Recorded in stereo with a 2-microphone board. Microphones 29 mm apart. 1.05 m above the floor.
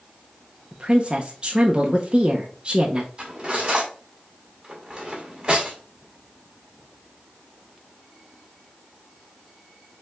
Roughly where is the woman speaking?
Right.